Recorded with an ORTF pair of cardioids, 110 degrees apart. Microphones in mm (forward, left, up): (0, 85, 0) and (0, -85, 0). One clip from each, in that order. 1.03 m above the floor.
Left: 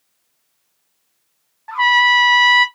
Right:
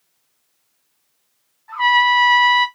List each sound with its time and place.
1.7 s a trumpet: 55° left, 0.9 m